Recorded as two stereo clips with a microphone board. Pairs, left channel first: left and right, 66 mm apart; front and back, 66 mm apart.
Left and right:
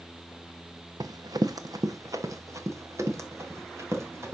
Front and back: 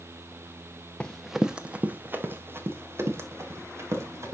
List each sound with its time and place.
1.0 s running footsteps: 75° right, 0.7 m; by 4.3 s 135° right, 3 m